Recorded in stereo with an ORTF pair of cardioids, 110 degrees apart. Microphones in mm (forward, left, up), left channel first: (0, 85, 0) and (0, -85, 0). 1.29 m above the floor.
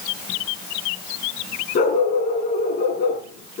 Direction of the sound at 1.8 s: 60° left.